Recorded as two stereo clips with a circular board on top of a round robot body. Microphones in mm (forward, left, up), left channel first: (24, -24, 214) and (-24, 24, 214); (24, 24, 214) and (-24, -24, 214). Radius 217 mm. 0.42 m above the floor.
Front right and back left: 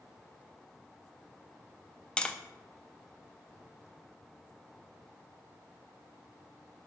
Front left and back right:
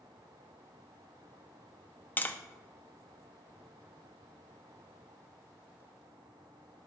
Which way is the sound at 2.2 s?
15° left.